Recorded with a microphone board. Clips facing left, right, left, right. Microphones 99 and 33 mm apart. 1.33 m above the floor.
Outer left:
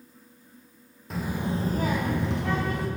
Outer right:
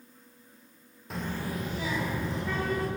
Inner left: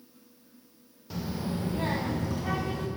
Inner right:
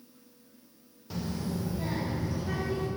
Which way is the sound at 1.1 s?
Centre (ahead or behind).